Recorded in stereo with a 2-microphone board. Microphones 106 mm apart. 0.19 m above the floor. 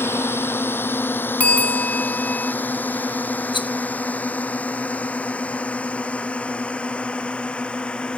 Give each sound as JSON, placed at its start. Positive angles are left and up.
{"t": 0.0, "sound": "a drone", "side_deg": 20}
{"t": 1.4, "sound": "a bell", "side_deg": 15}
{"t": 3.5, "sound": "a rattle", "side_deg": 50}